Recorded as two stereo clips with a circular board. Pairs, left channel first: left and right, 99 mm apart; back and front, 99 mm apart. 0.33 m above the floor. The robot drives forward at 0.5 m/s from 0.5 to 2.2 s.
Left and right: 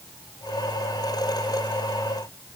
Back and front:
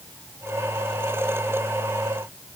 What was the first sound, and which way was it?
Only background noise.